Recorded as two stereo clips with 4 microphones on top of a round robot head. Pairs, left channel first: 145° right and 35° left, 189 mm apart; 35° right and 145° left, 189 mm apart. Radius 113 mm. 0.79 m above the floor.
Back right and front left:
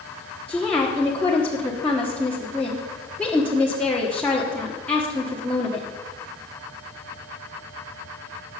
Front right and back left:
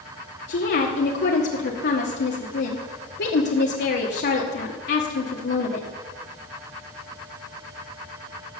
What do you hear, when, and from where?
0.5 s a woman speaking: 65° right, 1.4 m